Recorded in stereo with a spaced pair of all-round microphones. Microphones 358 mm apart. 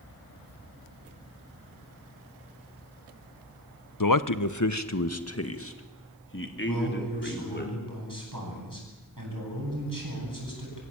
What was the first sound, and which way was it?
A man speaking, 65° left (ahead or behind).